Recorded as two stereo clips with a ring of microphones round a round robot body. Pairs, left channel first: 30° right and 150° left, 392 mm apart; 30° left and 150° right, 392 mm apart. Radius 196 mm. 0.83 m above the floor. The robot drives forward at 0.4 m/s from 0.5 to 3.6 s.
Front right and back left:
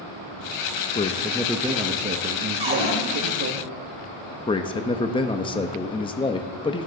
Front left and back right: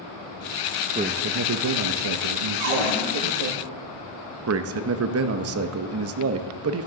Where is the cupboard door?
135° right, 3 m.